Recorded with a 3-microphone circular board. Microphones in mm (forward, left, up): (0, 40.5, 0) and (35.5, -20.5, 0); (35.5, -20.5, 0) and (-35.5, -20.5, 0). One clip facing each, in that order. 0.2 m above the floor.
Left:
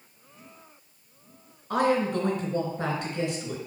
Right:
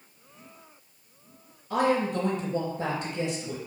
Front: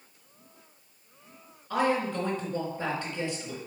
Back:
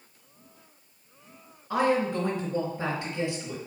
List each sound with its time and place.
1.7 s a woman speaking: 110° left, 3 m